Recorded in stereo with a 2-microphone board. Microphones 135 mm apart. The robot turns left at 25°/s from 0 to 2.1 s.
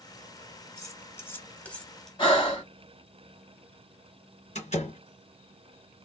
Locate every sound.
0.8 s cutlery clinking: 25° left (ahead or behind), 0.9 m; by 2.1 s 5° left (ahead or behind), 0.9 m
2.2 s breathing: 35° left (ahead or behind), 1.8 m
4.5 s a door slam: 55° left (ahead or behind), 2 m